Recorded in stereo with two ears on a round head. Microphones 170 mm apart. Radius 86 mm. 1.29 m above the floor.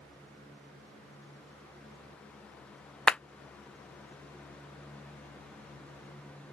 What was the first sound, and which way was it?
A clap, 5° left (ahead or behind).